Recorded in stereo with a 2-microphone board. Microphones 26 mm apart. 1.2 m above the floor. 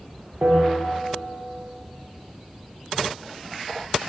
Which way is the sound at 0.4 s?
70° right (ahead or behind).